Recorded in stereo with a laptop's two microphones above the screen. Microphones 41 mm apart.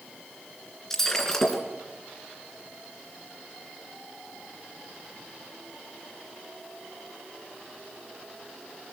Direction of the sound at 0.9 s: 10° left (ahead or behind).